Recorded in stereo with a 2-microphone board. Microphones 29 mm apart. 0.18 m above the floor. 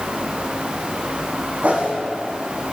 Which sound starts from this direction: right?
A whoosh, at 1.6 s.